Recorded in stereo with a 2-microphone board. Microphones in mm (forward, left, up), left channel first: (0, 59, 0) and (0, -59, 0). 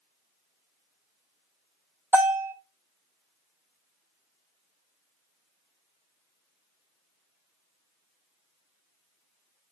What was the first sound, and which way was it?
A bell, 20° right (ahead or behind).